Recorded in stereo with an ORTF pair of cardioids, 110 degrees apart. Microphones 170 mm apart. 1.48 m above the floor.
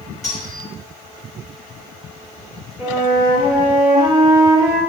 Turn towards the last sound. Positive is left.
turn(degrees=50)